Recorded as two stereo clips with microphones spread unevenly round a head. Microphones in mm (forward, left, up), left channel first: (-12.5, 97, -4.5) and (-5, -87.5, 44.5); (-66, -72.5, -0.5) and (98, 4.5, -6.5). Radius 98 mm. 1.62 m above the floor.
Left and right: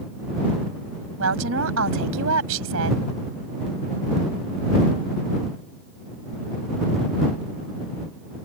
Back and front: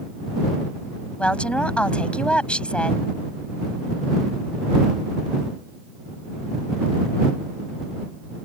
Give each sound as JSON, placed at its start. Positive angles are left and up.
{"t": 1.2, "sound": "a woman speaking", "azimuth_deg": -70}